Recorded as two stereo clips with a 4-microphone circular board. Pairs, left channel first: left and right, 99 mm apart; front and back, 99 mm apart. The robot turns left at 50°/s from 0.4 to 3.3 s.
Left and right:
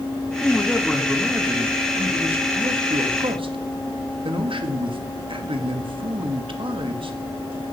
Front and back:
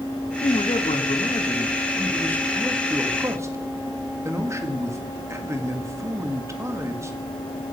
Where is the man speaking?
25° left, 1.5 m; by 7.2 s 120° right, 1.5 m.